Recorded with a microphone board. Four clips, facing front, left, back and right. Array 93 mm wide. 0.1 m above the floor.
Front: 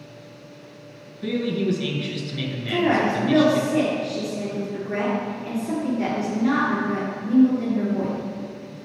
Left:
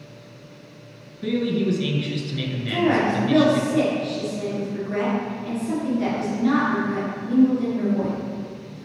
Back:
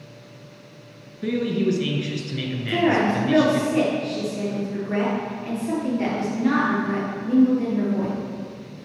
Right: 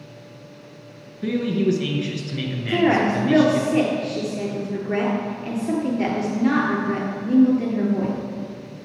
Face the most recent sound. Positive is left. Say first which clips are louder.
# right 2 dB, back 1 dB
turn(degrees=-105)